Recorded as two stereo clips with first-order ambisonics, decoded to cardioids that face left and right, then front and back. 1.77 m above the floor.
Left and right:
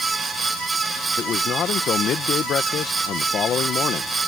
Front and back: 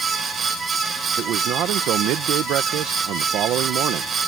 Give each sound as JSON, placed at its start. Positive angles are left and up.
{"t": 1.2, "sound": "a man speaking", "azimuth_deg": 145}